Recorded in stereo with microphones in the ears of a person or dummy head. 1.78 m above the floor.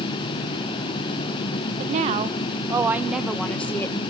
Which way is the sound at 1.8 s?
40° right (ahead or behind).